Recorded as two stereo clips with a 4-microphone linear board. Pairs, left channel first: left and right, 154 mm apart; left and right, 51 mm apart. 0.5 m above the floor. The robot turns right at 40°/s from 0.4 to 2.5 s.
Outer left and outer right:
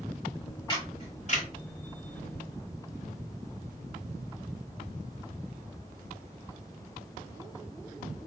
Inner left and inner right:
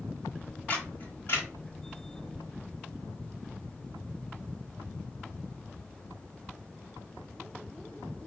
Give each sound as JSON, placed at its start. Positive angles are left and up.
{"t": 0.7, "sound": "a camera shutter", "side_deg": 30, "distance_m": 3.0}